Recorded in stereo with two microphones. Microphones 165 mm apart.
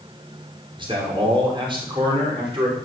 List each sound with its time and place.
0.8 s a man speaking: 30° right (ahead or behind), 5 m; by 2.8 s 35° right (ahead or behind), 6 m